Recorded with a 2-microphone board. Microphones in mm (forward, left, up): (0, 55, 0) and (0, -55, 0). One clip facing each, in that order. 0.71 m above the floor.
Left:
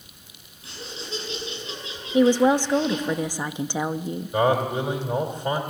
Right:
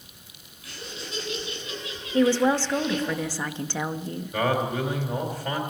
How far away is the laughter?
About 8 m.